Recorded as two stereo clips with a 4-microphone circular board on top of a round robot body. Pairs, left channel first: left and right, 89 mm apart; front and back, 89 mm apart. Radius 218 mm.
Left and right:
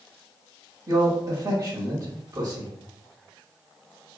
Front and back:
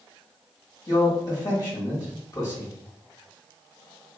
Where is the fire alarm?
No fire alarm in this recording.